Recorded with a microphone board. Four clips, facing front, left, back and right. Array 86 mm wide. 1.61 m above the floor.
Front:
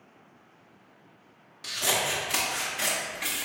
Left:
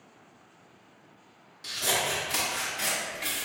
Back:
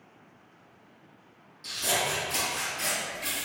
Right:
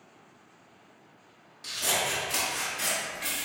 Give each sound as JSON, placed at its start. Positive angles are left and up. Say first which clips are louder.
{"t": 1.6, "sound": "scissors", "louder": "left 1 dB, front 1 dB", "azimuth_deg": 5, "distance_m": 0.8}